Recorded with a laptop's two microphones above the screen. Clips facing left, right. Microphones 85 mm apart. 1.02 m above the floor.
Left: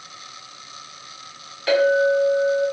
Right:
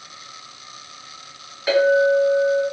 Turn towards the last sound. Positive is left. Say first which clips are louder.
# right 1 dB
turn(degrees=-10)  # may be behind; listen again after turning